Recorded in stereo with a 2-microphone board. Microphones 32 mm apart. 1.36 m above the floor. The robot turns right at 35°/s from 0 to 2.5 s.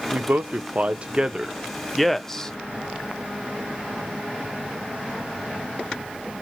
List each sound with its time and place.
0.1 s a man speaking: 65° right (ahead or behind), 0.5 m; by 2.5 s 20° left (ahead or behind), 0.5 m